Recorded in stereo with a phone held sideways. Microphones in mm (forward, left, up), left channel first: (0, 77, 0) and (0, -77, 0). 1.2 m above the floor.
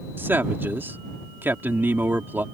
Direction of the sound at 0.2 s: 15° right (ahead or behind).